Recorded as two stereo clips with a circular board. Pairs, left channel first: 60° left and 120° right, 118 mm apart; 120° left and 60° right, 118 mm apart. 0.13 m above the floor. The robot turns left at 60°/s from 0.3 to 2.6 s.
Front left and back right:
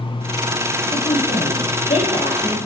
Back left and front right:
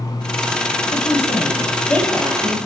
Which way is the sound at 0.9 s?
105° left.